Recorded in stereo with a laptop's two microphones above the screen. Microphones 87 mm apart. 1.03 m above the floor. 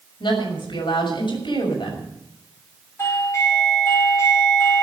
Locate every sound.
0.2 s a woman speaking: 65° left (ahead or behind), 6 m
3.0 s a doorbell: 35° left (ahead or behind), 4.5 m